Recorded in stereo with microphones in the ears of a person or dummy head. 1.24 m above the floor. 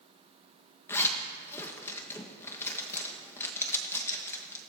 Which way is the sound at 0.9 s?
15° left (ahead or behind).